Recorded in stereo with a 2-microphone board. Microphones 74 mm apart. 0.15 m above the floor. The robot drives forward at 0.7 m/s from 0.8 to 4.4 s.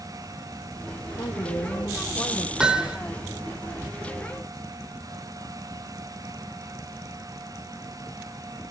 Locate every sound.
1.2 s a woman speaking: 65° left (ahead or behind), 3.5 m; by 2.5 s 60° left (ahead or behind), 4 m
2.6 s hammering: 10° right (ahead or behind), 1.8 m